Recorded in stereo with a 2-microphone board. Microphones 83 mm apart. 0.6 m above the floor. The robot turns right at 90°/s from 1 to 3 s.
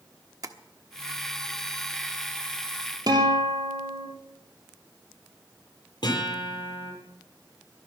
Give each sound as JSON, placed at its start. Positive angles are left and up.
{"t": 0.4, "sound": "tapping", "side_deg": -45, "distance_m": 1.2}
{"t": 3.1, "sound": "a guitar", "side_deg": -50, "distance_m": 3.5}
{"t": 6.0, "sound": "a guitar", "side_deg": 60, "distance_m": 9.5}